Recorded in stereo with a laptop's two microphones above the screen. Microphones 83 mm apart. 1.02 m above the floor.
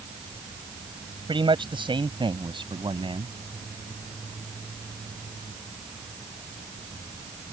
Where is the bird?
No bird in this recording.